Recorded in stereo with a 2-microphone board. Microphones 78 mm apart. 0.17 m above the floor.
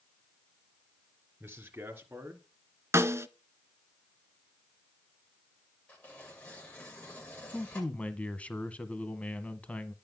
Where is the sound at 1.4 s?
25° right (ahead or behind), 3 m.